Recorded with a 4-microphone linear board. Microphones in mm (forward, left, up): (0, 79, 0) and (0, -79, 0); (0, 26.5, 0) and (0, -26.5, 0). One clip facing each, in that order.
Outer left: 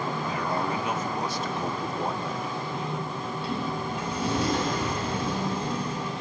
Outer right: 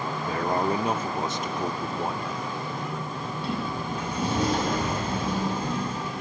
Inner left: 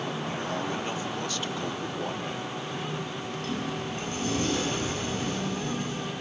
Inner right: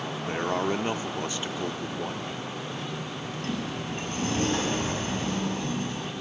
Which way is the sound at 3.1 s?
50° right (ahead or behind).